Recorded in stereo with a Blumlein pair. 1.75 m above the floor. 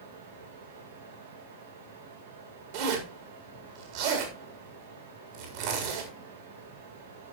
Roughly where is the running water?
Right.